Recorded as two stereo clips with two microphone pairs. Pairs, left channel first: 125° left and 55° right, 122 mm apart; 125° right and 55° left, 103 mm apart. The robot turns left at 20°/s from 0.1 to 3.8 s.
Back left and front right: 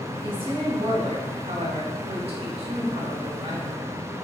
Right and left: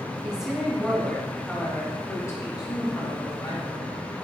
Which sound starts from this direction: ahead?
A woman speaking, at 0.2 s.